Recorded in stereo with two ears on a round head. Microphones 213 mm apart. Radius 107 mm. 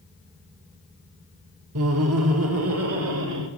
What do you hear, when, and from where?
1.8 s laughter: 65° right (ahead or behind), 1.2 m; by 3.5 s 60° right (ahead or behind), 2.5 m